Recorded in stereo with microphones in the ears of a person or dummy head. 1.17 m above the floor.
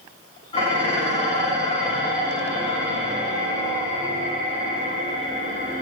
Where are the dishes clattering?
25° left (ahead or behind), 0.7 m.